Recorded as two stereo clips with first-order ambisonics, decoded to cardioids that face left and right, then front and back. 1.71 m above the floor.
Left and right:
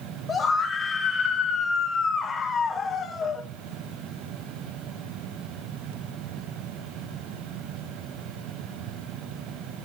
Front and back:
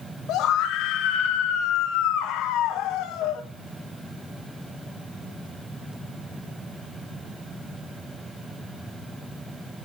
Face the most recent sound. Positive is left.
turn(degrees=25)